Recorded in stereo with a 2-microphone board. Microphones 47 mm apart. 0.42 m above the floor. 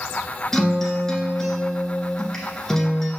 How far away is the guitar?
About 1.4 m.